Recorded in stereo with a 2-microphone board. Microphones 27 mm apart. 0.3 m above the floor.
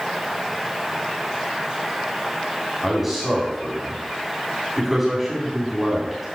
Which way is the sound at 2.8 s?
10° right (ahead or behind).